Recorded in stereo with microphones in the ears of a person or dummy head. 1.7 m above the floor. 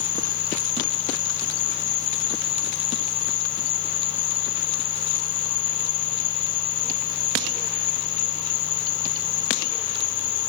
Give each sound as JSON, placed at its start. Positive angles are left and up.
{"t": 0.0, "sound": "an insect", "side_deg": 45}